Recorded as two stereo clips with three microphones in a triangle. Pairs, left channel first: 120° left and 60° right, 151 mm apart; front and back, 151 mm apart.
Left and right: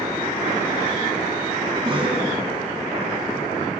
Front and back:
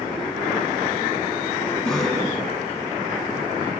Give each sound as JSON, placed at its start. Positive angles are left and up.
{"t": 1.8, "sound": "a cough", "azimuth_deg": -75, "distance_m": 1.9}